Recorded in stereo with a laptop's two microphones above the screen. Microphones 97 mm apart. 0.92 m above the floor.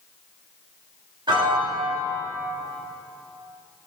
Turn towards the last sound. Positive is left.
turn(degrees=-55)  # may be behind; listen again after turning